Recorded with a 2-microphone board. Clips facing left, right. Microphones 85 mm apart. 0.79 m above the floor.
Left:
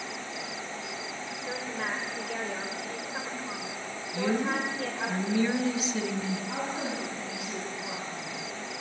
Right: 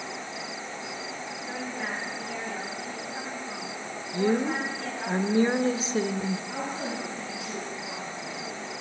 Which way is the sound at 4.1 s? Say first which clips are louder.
Right 3 dB; 35° right (ahead or behind).